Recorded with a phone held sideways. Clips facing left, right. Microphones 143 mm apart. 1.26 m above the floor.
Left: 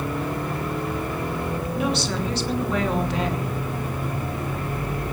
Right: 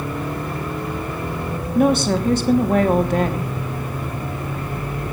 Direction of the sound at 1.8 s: 45° right (ahead or behind).